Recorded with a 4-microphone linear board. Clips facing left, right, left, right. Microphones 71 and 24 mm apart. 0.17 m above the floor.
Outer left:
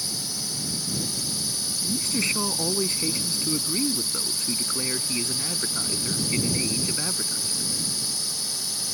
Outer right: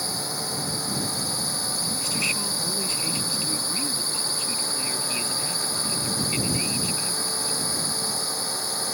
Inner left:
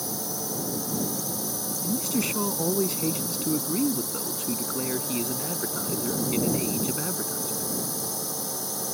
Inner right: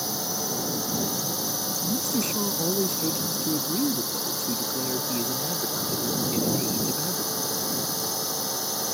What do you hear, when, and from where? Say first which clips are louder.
0.0 s a drone: outer right 6 dB, inner right 3 dB; 45° right (ahead or behind)
1.8 s a man speaking: outer left 4 dB, inner left 1 dB; 35° left (ahead or behind)